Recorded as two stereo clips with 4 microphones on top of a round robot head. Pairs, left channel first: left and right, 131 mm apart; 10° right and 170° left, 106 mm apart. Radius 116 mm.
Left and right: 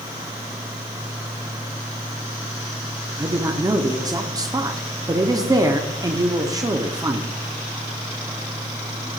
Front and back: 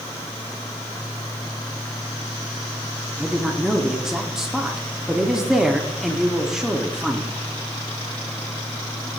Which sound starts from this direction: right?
A woman speaking, at 3.2 s.